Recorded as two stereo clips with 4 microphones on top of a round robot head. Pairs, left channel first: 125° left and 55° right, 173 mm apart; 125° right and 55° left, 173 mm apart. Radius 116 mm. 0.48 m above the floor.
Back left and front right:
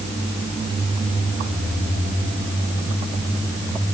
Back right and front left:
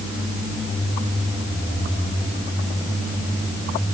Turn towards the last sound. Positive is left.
No sound to turn to.